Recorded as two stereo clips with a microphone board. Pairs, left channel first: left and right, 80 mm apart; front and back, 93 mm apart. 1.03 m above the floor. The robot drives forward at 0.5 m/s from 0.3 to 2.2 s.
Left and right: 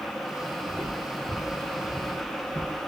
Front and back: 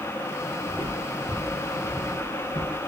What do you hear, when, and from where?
0.7 s footsteps: 150° left, 1.2 m; by 2.8 s 155° right, 2 m